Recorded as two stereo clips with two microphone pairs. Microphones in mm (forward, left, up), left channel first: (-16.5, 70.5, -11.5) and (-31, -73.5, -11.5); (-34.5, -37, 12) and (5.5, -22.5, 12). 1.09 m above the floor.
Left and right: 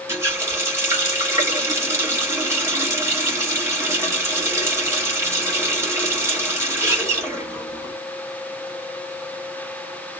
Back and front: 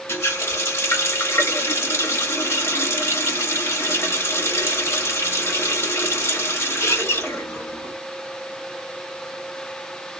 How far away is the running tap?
About 1.4 m.